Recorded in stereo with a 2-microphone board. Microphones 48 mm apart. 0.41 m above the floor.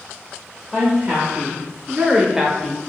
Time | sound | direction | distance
0.7 | a woman speaking | 20° right (ahead or behind) | 1.1 m